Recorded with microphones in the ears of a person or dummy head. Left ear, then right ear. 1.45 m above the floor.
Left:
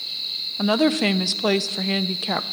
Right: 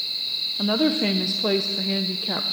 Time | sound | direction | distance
0.6 | a woman speaking | 35° left (ahead or behind) | 0.5 m